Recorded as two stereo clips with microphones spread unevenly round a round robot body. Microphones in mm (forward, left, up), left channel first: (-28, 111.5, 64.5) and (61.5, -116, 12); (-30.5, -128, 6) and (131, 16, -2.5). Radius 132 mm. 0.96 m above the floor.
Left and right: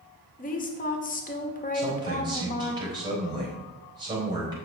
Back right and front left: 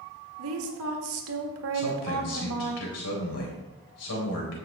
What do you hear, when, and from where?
0.4 s a woman speaking: 50° left, 1.8 m
1.7 s a man speaking: 140° right, 3.5 m